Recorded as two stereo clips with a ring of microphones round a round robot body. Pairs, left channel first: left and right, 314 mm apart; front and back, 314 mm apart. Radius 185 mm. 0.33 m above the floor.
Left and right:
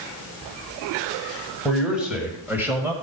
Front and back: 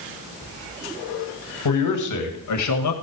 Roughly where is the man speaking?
Ahead.